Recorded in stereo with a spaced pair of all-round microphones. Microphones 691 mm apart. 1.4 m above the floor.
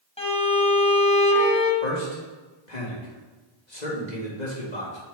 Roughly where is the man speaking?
Left.